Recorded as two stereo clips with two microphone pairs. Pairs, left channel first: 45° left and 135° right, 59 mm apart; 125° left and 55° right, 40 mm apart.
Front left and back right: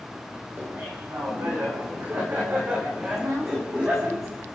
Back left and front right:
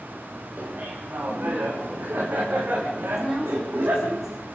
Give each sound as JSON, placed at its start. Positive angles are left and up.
{"t": 0.6, "sound": "laughter", "azimuth_deg": -95, "distance_m": 6.5}
{"t": 3.2, "sound": "a woman speaking", "azimuth_deg": -135, "distance_m": 8.5}